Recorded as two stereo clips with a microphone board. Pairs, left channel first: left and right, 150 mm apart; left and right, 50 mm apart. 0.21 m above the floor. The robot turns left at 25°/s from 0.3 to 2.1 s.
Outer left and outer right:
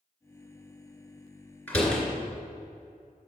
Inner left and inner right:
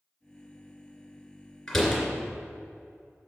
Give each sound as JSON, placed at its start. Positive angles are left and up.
{"t": 1.7, "sound": "a door slam", "side_deg": 10, "distance_m": 2.5}